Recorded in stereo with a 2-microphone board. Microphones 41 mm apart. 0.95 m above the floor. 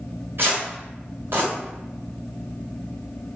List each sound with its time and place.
0.4 s tearing paper: 65° right (ahead or behind), 1.6 m